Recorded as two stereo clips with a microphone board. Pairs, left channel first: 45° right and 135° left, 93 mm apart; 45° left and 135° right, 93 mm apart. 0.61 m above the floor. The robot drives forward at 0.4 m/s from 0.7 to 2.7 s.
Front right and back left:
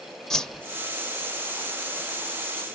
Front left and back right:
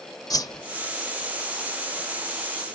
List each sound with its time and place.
0.3 s a whoosh: 35° left, 0.7 m